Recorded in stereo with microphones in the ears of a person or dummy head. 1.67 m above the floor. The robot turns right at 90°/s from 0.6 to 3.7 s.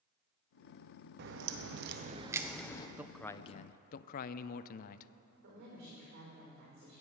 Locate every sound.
1.2 s a crack: 120° right, 0.9 m; by 2.9 s 30° left, 0.9 m
3.0 s a man speaking: 10° right, 0.5 m; by 5.1 s 55° left, 0.5 m
5.4 s a woman speaking: 70° right (ahead or behind), 5.5 m